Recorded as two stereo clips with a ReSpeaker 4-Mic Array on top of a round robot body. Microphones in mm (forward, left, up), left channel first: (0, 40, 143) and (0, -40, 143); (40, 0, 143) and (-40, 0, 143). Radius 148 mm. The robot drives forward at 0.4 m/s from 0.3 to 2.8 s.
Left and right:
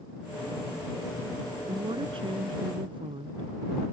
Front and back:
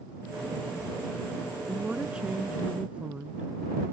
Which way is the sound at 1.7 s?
100° right.